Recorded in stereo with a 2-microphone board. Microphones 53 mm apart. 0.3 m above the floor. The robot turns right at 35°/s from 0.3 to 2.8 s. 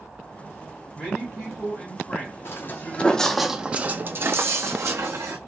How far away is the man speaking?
About 2 m.